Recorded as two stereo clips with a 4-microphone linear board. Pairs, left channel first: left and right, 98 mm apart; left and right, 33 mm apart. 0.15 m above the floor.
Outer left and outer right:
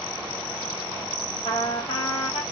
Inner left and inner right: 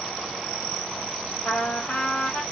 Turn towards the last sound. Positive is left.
turn(degrees=65)  # may be behind; listen again after turning